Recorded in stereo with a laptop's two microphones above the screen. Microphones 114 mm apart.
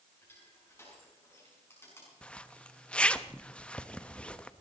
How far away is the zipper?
About 0.8 m.